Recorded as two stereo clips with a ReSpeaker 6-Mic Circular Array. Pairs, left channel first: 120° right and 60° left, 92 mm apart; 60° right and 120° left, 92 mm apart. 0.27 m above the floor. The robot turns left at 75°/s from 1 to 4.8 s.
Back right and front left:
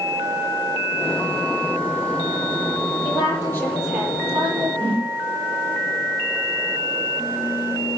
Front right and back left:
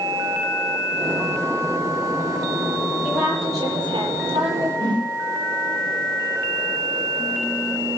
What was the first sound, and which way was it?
A woman speaking, 150° right.